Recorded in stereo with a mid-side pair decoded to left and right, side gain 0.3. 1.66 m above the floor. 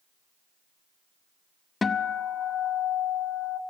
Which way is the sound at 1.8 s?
50° left.